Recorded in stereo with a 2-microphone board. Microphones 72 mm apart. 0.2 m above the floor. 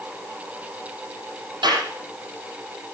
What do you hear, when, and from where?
1.6 s a clap: 80° right, 6 m